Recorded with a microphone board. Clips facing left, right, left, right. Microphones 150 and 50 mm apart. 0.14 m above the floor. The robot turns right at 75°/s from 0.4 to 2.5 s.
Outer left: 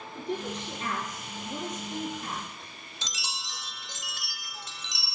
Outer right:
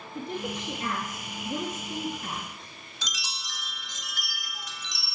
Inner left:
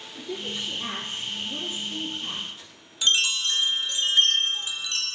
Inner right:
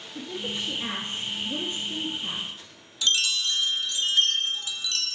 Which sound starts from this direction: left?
A chime, at 3.0 s.